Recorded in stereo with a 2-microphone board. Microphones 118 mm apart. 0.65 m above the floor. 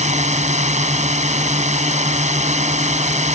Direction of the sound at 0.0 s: 80° right.